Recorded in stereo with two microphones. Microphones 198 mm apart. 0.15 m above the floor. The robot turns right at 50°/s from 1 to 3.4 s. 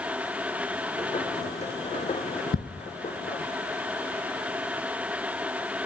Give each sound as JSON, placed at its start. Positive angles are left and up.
{"t": 2.5, "sound": "ticking", "side_deg": 50, "distance_m": 0.9}